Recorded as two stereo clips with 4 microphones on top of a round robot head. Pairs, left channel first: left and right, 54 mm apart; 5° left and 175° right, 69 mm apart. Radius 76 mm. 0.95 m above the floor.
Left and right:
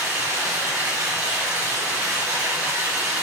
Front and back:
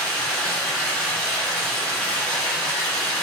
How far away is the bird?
I don't hear a bird.